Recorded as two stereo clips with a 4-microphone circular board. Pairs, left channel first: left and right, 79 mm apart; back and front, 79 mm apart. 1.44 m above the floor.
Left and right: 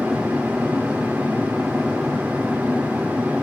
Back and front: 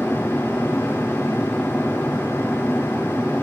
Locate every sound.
0.0 s an aircraft: 160° right